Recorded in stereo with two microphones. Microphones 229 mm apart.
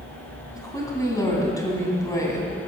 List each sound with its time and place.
0.6 s a woman speaking: 15° left (ahead or behind), 3 m